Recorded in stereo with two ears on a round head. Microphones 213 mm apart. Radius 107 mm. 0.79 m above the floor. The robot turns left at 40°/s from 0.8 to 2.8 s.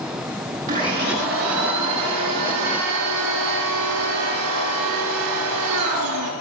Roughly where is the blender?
Ahead right.